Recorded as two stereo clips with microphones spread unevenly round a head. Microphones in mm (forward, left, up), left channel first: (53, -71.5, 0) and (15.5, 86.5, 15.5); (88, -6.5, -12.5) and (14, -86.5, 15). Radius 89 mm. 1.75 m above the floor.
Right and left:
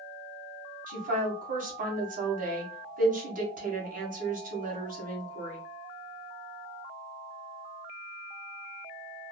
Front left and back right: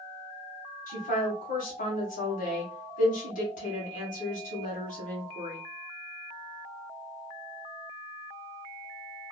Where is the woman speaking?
60° left, 1.6 m.